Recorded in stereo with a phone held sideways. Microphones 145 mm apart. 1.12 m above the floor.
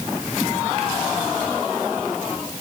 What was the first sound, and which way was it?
Only background noise.